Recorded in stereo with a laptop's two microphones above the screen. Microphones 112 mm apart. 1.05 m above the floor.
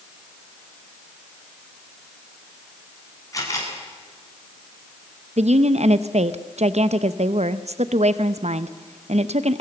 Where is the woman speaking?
75° right (ahead or behind), 0.7 m.